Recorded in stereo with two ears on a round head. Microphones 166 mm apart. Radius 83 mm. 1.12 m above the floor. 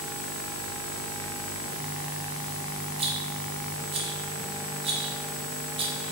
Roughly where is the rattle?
Right.